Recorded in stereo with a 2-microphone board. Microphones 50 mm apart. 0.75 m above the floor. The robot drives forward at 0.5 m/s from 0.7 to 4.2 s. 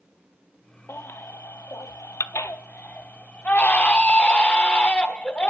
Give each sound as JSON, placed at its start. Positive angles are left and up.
{"t": 0.9, "sound": "a baby crying", "side_deg": 50, "distance_m": 0.7}